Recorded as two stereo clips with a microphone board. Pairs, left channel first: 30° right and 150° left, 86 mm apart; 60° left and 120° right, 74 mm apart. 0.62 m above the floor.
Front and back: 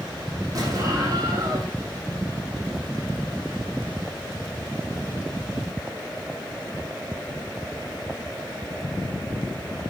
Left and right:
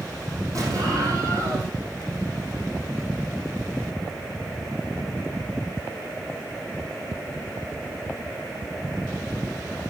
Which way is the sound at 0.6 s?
160° right.